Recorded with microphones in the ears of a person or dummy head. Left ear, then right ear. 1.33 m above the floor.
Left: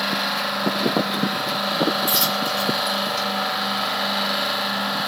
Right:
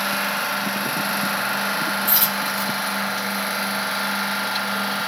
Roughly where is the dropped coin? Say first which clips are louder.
Left 1 dB; centre.